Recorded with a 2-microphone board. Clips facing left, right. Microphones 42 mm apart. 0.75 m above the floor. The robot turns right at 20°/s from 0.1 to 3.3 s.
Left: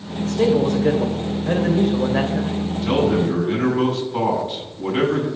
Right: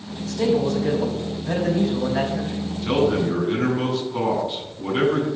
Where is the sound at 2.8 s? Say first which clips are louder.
Left 1 dB; 30° left (ahead or behind), 7 m; by 5.3 s 40° left (ahead or behind), 7 m.